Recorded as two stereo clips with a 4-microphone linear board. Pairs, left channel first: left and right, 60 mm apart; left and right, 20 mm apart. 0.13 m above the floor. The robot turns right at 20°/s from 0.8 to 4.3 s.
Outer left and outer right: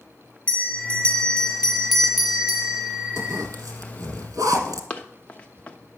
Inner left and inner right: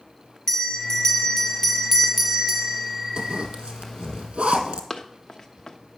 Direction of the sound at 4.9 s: 25° left (ahead or behind).